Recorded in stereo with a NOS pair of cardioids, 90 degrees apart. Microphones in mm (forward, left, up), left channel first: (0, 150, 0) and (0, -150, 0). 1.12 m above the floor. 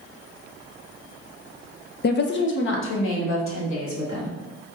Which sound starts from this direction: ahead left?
A woman speaking, at 2.0 s.